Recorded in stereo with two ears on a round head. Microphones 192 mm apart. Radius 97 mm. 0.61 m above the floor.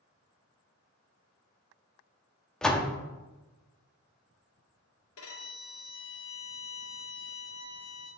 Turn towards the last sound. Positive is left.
turn(degrees=75)  # may be behind; listen again after turning